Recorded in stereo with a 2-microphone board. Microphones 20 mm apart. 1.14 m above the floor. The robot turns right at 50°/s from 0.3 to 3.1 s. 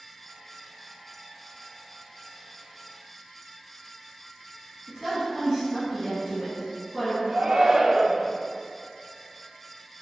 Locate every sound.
4.9 s a woman speaking: 10° right (ahead or behind), 1.5 m
7.3 s a shout: 40° right (ahead or behind), 0.5 m